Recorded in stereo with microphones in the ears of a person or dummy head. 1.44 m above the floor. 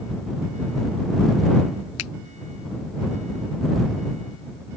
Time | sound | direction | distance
2.0 | a finger snap | 85° left | ?